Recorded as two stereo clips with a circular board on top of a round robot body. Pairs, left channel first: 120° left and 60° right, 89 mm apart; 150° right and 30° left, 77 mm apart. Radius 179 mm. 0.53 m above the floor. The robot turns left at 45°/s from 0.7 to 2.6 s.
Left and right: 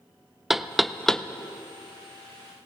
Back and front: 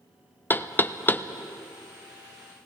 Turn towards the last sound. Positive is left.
turn(degrees=130)